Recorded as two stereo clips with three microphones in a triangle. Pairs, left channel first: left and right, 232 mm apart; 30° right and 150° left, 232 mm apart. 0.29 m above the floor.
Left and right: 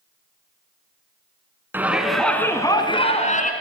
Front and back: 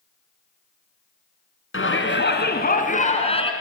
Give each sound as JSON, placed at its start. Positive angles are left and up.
{"t": 1.7, "sound": "a shout", "azimuth_deg": -10, "distance_m": 2.5}